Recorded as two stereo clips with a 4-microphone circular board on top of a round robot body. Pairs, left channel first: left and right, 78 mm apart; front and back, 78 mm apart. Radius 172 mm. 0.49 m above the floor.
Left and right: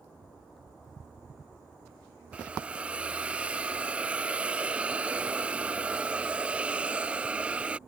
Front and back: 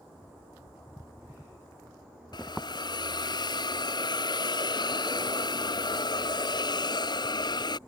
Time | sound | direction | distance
2.3 | a hiss | 15° right | ?